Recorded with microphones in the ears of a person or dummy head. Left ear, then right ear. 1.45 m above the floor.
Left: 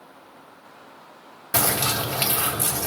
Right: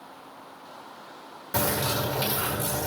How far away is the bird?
About 1.9 m.